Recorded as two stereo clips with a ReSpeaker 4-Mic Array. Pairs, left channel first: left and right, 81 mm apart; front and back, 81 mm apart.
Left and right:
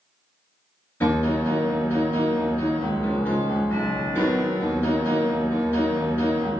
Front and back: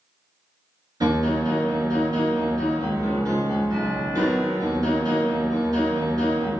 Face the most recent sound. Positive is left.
turn(degrees=150)